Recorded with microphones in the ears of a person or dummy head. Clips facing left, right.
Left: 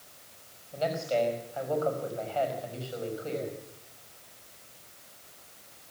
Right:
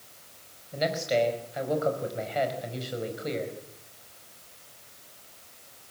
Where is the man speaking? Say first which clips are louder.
Right 2 dB; 20° right (ahead or behind), 5 m.